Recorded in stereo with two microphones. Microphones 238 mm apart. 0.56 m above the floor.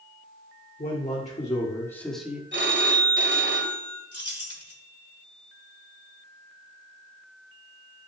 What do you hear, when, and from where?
0.8 s a man speaking: 40° left (ahead or behind), 1.7 m; by 2.4 s 5° right (ahead or behind), 1.3 m
2.5 s a phone ringing: 50° right (ahead or behind), 1.5 m
4.1 s keys jangling: 75° left (ahead or behind), 1.8 m